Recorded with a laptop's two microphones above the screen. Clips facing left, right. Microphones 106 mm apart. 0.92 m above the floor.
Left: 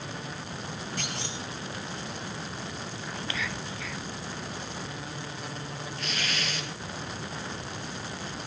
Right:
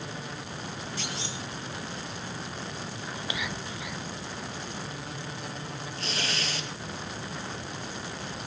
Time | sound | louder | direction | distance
1.0 | a clunk | even | 55° left (ahead or behind) | 5.5 m
3.1 | whispering | even | 15° right (ahead or behind) | 0.7 m
6.0 | tearing paper | right 1 dB | 35° right (ahead or behind) | 5 m